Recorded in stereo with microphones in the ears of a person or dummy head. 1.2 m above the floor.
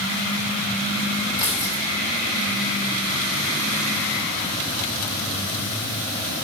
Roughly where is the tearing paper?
Left.